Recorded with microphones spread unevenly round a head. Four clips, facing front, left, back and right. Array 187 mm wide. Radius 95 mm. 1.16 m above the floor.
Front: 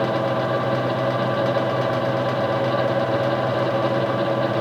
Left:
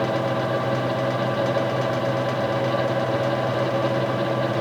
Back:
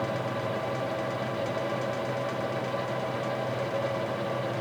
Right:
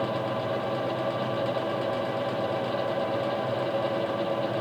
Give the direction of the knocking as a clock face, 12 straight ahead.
No knocking in this recording.